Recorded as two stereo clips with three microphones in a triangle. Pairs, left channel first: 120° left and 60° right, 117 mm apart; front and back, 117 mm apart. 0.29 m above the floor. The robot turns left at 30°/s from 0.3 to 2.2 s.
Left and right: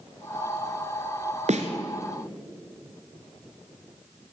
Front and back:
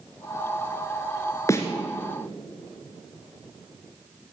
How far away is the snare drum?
About 1.9 m.